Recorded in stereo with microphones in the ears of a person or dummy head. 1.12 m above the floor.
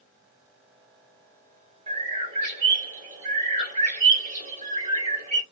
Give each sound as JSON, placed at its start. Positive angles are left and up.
{"t": 1.9, "sound": "a bird", "side_deg": -45, "distance_m": 2.0}